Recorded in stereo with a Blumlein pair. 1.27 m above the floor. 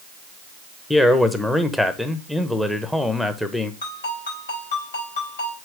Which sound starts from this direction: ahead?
A man speaking, at 0.9 s.